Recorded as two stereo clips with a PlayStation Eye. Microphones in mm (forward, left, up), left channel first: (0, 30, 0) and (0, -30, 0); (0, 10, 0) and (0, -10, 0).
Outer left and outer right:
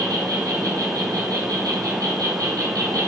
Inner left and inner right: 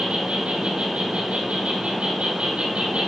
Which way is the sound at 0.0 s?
80° right.